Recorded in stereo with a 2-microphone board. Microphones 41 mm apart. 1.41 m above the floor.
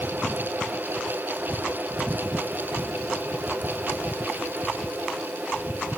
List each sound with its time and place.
Only background noise.